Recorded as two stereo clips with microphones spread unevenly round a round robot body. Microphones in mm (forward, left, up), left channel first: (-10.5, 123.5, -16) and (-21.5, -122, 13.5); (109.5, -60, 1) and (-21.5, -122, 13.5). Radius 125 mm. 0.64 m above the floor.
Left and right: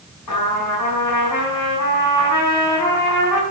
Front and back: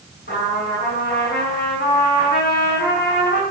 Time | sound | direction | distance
0.3 | a trumpet | 75° left | 5.5 m